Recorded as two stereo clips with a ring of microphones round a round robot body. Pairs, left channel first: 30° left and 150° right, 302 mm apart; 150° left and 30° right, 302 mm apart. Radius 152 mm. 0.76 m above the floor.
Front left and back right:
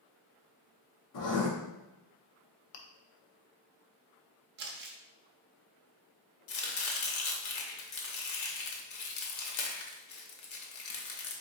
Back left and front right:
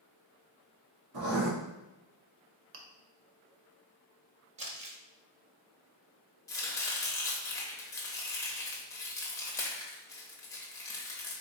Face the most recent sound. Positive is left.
turn(degrees=70)